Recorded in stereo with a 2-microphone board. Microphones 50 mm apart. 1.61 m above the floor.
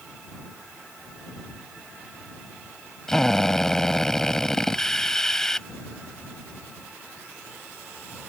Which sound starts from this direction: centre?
A drill, at 3.1 s.